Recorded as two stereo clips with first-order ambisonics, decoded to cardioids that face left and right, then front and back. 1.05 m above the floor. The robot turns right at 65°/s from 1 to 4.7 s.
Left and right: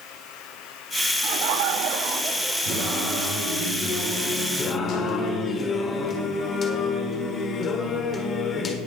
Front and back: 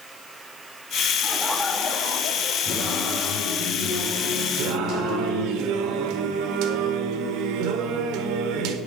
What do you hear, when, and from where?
1.2 s laughter: 105° right, 1.3 m; by 3.2 s 25° left, 1.3 m
2.6 s singing: 95° right, 6 m; by 5.6 s 40° left, 6 m
4.6 s singing: 150° left, 1.5 m; by 8.8 s 155° left, 1.5 m